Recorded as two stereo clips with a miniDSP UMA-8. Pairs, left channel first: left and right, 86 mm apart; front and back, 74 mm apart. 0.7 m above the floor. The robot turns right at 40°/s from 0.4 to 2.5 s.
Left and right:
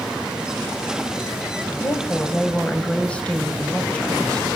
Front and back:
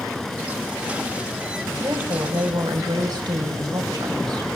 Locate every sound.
1.8 s a woman speaking: 140° left, 5 m; by 4.5 s 165° left, 5 m